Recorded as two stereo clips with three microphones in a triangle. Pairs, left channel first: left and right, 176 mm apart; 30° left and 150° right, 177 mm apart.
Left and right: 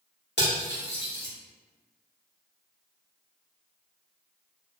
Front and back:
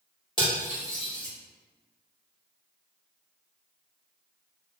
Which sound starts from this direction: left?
Cutlery clinking, at 0.4 s.